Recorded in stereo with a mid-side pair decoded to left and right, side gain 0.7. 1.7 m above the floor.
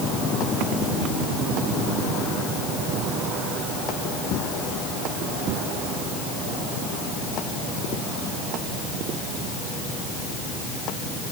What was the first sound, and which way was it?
Only background noise.